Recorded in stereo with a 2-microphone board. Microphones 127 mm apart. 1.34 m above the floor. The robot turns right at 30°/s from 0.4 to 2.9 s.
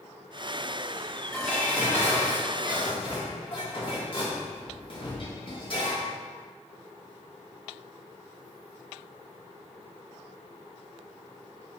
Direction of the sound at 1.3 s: Straight ahead.